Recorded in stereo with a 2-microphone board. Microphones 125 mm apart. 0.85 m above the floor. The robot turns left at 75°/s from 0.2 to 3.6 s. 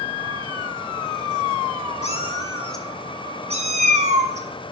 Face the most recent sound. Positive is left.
turn(degrees=-60)  # may be behind; listen again after turning